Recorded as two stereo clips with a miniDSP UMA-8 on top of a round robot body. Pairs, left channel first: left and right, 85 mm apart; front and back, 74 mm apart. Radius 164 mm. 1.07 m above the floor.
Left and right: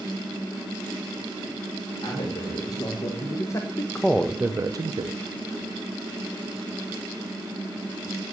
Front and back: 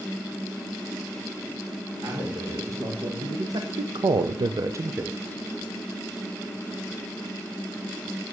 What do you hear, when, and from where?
2.0 s a man speaking: 130° left, 2.0 m; by 5.2 s 105° right, 0.7 m